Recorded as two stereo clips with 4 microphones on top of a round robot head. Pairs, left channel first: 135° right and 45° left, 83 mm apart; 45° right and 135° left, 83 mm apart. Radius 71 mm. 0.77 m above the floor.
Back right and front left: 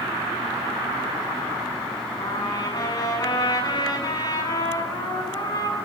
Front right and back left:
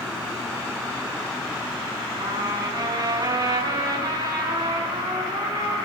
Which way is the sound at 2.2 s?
175° right.